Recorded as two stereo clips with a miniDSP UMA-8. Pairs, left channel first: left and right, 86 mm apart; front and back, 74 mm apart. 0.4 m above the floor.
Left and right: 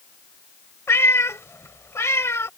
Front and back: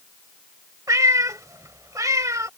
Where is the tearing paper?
No tearing paper in this recording.